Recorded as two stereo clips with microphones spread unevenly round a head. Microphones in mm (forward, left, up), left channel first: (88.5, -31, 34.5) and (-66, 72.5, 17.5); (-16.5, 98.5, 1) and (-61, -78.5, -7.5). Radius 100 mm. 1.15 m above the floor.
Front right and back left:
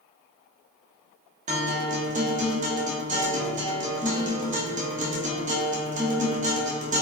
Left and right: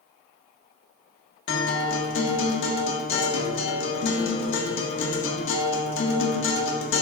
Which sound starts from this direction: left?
A guitar, at 1.5 s.